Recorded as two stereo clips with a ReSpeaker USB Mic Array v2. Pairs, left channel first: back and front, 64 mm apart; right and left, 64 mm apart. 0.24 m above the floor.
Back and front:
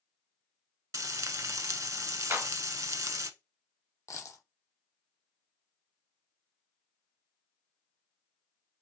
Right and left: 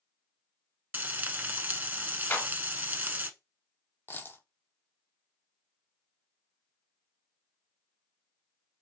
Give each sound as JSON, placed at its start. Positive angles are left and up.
{"t": 0.9, "sound": "frying", "azimuth_deg": 30, "distance_m": 0.5}
{"t": 2.3, "sound": "a clap", "azimuth_deg": -40, "distance_m": 1.7}
{"t": 4.1, "sound": "a dropped coin", "azimuth_deg": -145, "distance_m": 0.8}